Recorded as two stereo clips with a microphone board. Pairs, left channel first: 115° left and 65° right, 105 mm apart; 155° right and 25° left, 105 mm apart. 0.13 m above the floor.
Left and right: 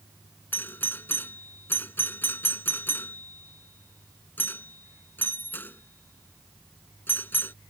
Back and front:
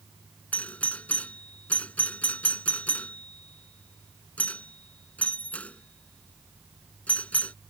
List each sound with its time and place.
0.5 s a doorbell: 150° left